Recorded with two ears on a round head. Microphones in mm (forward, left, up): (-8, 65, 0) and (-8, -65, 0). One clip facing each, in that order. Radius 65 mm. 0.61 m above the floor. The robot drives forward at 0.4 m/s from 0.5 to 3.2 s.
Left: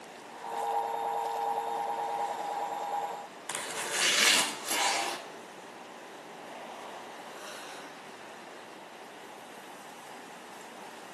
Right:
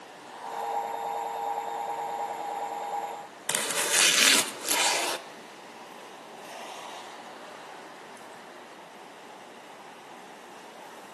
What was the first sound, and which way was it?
Chopping, 70° right (ahead or behind).